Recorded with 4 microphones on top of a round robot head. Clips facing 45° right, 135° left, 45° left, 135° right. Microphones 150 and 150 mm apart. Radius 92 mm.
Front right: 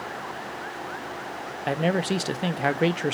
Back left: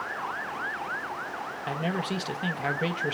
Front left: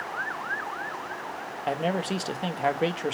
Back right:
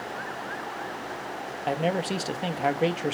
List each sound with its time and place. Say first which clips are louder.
1.7 s a man speaking: front right 7 dB, back right 1 dB; 45° right, 0.6 m